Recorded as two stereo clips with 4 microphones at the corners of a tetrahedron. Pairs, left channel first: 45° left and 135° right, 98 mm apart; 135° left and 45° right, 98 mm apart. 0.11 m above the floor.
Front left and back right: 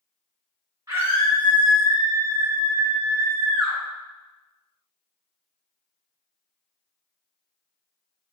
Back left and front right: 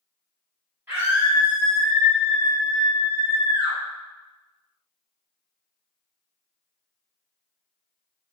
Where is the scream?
95° right, 1.7 m; by 3.8 s 140° left, 1.6 m.